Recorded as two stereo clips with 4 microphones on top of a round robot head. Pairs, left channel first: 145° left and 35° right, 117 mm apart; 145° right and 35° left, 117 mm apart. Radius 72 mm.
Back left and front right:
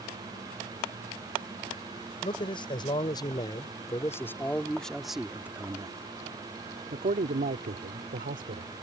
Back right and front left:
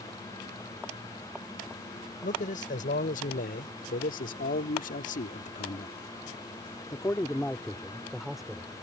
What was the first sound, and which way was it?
A man speaking, 165° right.